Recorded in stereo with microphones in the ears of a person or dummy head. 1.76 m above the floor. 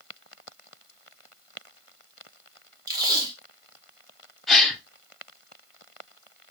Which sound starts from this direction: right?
Tape being pulled, at 2.9 s.